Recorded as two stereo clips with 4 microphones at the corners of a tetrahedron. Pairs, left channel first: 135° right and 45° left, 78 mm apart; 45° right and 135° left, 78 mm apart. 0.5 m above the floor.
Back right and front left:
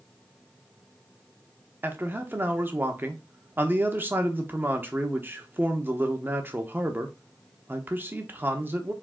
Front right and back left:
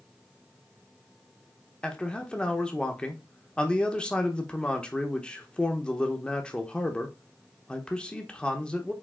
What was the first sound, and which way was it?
A man speaking, 15° left.